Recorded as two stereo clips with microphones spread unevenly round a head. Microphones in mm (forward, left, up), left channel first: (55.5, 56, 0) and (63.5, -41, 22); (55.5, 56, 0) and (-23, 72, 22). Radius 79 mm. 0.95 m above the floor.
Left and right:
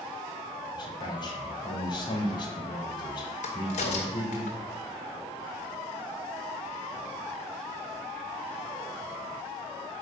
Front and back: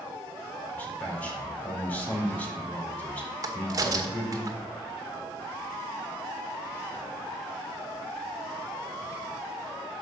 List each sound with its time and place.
0.7 s a man speaking: 60° left, 4 m
3.4 s a crack: 125° left, 1.8 m